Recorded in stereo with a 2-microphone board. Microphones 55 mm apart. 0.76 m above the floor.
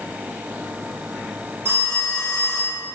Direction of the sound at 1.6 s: 45° right (ahead or behind).